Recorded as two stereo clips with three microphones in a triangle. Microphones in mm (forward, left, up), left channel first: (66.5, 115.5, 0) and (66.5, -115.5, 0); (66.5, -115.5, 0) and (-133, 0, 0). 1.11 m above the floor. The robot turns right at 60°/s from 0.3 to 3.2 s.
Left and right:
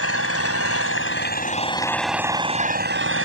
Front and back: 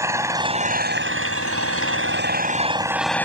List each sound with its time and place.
0.0 s an engine running: 75° left; by 3.3 s 110° right